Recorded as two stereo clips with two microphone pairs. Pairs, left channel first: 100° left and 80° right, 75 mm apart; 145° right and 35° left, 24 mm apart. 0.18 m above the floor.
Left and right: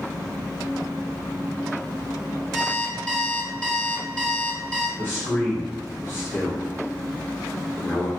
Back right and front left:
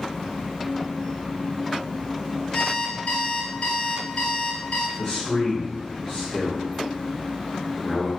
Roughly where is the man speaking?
Behind.